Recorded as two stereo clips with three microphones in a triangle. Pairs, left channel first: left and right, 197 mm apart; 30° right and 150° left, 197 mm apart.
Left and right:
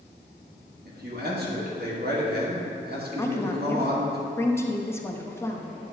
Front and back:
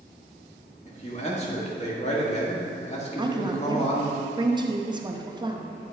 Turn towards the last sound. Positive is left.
turn(degrees=145)